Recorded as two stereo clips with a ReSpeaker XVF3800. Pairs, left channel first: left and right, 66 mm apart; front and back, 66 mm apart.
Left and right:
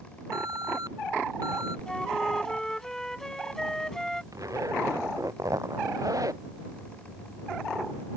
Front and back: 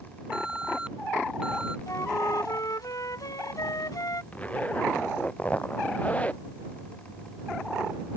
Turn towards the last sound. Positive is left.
turn(degrees=-65)